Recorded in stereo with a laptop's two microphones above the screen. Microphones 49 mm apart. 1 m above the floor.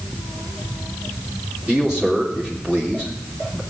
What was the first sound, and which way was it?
A man speaking, 15° right (ahead or behind).